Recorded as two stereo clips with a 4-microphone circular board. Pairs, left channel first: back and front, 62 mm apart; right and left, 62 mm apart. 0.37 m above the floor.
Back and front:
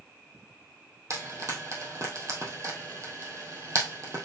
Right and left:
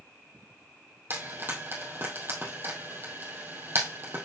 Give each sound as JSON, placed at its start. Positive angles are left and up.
{"t": 1.1, "sound": "frying", "azimuth_deg": 35, "distance_m": 2.0}